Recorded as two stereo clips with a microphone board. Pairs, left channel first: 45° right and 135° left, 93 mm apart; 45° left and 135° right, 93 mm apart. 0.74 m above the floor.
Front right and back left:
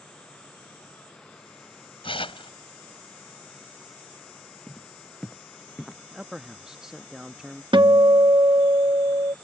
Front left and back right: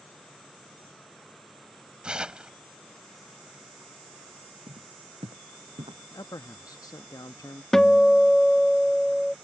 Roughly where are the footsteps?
Behind right.